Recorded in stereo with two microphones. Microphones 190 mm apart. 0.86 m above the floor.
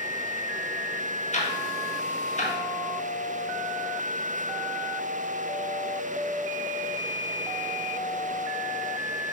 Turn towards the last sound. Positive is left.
turn(degrees=40)  # may be behind; listen again after turning